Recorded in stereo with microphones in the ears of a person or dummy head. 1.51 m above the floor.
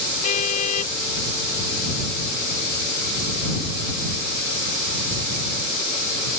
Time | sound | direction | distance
0.2 | a car horn | 40° left (ahead or behind) | ?